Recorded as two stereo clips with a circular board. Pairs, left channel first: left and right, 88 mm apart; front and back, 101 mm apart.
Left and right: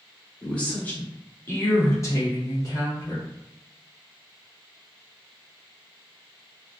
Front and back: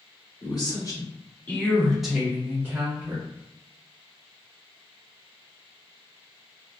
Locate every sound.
0.4 s a woman speaking: 15° left, 1.1 m; by 3.2 s 130° left, 1.2 m